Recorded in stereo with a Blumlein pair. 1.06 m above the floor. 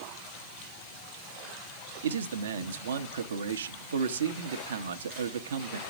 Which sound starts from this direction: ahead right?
A man speaking, at 2.0 s.